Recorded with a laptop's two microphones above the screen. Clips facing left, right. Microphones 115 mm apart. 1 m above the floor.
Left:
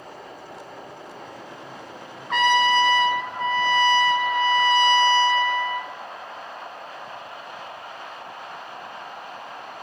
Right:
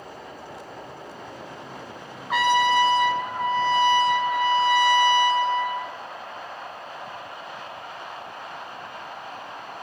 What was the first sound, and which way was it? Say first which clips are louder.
A trumpet: even; 10° right (ahead or behind).